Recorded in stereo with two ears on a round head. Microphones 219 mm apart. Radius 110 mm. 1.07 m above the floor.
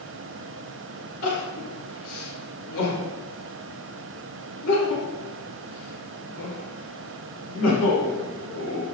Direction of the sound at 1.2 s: 75° left (ahead or behind).